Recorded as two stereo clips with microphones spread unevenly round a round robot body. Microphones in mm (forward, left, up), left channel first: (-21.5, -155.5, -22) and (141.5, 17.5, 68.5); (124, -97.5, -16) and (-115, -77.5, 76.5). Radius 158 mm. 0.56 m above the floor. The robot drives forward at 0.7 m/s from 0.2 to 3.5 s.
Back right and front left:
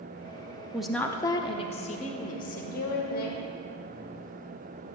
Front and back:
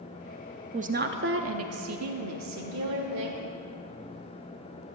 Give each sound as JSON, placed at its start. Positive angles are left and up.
{"t": 0.7, "sound": "a woman speaking", "azimuth_deg": -105, "distance_m": 0.8}